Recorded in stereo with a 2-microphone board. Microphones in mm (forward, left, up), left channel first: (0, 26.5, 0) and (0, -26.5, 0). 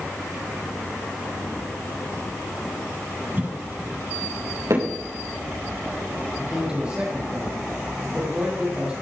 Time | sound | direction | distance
3.4 | a cough | 35° right (ahead or behind) | 2.5 m
4.7 | hammering | 65° right (ahead or behind) | 6 m
6.4 | a man speaking | 20° right (ahead or behind) | 5.5 m